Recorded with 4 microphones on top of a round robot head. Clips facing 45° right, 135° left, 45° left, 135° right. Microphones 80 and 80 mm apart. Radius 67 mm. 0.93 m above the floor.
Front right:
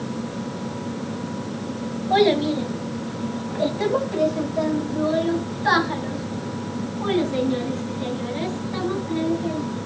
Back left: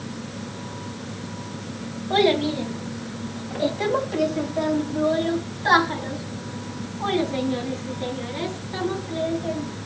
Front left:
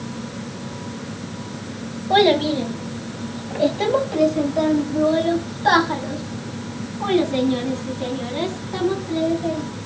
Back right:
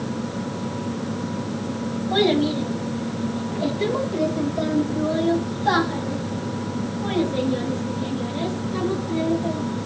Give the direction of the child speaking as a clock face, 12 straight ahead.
11 o'clock.